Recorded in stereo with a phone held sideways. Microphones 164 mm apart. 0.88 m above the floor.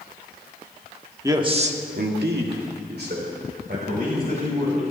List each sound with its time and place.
1.2 s a man speaking: 20° right (ahead or behind), 1.4 m; by 4.8 s 55° right (ahead or behind), 4.5 m